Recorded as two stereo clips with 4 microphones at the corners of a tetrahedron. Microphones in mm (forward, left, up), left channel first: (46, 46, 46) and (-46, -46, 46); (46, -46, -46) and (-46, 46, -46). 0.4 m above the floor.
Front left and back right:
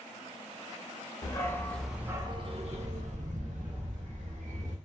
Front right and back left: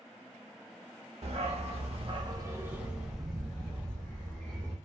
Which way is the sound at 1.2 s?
105° left.